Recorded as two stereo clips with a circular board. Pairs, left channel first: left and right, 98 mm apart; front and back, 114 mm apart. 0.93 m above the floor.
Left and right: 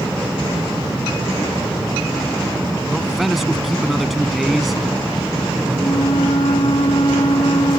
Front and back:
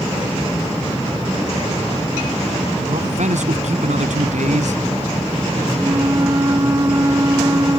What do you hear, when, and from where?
2.9 s a man speaking: straight behind
5.8 s a flute: 120° left